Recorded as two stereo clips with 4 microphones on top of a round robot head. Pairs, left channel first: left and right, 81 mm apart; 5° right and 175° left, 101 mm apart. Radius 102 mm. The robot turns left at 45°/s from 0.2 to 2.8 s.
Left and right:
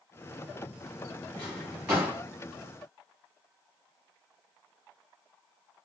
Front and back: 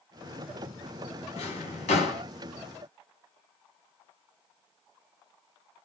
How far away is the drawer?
About 1.4 m.